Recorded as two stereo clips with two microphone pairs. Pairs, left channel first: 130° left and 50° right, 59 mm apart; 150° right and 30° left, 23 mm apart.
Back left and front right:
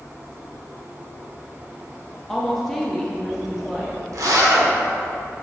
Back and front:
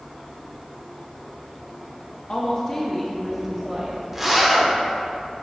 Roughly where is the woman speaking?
Behind.